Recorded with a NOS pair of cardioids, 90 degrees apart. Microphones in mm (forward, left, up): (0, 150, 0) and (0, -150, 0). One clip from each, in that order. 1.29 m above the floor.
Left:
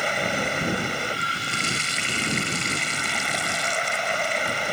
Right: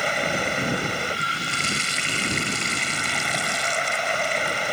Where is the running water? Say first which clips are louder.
Right 1 dB; 5° right.